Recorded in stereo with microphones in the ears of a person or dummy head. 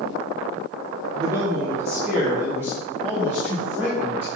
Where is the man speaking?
20° right (ahead or behind), 0.9 m; by 4.3 s 10° right (ahead or behind), 4 m.